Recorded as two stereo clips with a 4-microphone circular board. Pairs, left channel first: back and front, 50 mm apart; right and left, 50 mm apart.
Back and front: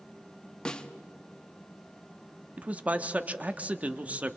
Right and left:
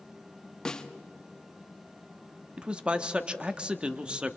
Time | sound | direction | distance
0.7 | a snare drum | 140° right | 0.8 m
2.6 | a man speaking | 35° left | 0.7 m